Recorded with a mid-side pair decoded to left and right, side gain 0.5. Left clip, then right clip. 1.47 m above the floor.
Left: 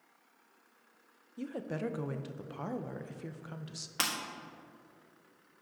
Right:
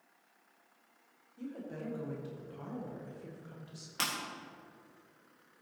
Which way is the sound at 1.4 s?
60° left.